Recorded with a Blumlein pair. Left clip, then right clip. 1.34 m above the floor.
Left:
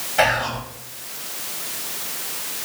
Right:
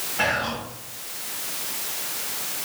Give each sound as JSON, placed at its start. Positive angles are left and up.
{"t": 0.2, "sound": "whispering", "azimuth_deg": 40, "distance_m": 3.0}